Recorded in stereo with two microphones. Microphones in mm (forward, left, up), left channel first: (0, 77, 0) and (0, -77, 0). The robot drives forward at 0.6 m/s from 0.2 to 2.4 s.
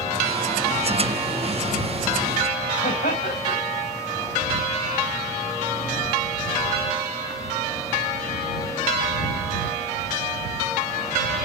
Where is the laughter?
75° left (ahead or behind), 5 m.